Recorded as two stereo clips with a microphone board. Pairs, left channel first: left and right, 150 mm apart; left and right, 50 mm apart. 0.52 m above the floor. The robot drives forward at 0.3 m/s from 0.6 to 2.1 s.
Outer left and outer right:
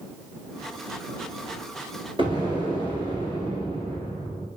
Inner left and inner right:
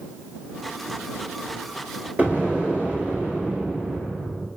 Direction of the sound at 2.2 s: 35° right (ahead or behind).